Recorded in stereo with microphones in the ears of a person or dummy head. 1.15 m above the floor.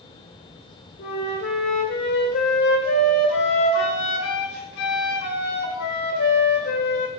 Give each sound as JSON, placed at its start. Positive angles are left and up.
{"t": 1.0, "sound": "a flute", "side_deg": 60, "distance_m": 1.7}